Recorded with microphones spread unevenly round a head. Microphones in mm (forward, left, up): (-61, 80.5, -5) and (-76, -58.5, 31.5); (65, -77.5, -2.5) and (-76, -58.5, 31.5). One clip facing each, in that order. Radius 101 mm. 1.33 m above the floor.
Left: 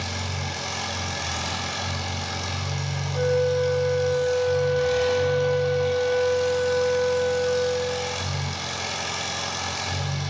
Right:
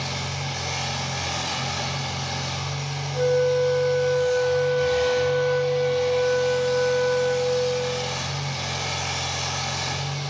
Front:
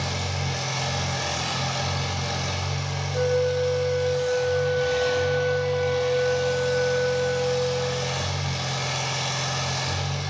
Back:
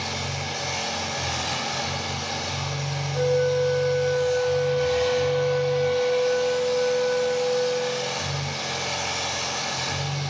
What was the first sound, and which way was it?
An engine running, 60° left.